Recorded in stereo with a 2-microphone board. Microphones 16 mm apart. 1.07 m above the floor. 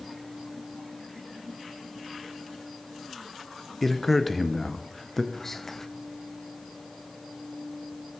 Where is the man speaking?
10° left (ahead or behind), 0.6 m.